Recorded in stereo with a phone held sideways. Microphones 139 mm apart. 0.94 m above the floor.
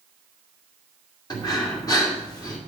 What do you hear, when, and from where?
1.3 s breathing: 30° left (ahead or behind), 2.5 m